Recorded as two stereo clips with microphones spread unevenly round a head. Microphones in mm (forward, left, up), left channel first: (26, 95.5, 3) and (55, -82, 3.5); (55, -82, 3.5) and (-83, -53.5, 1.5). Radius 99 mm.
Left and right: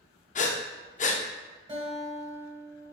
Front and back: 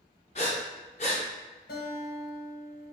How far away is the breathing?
About 0.5 m.